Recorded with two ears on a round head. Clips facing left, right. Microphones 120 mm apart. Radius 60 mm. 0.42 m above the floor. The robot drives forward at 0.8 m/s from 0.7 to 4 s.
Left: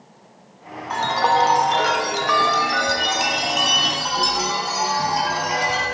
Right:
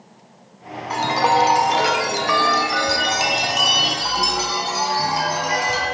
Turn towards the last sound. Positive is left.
turn(degrees=-5)  # may be behind; listen again after turning